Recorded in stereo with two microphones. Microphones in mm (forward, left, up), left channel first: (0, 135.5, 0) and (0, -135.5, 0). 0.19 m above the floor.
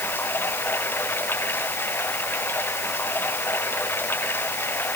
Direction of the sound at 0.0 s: 10° left (ahead or behind).